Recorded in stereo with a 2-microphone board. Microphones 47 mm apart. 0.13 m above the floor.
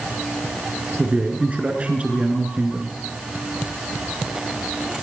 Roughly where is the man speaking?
Right.